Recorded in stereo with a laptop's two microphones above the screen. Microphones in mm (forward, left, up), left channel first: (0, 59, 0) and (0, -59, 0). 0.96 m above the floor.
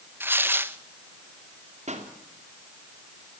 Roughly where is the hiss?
No hiss in this recording.